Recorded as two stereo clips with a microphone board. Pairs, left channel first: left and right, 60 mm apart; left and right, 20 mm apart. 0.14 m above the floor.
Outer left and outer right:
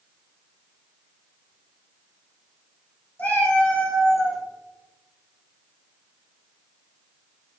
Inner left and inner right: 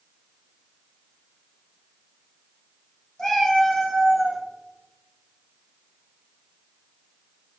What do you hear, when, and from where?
3.2 s a cat meowing: 25° left (ahead or behind), 1.7 m; by 4.4 s 5° right (ahead or behind), 0.9 m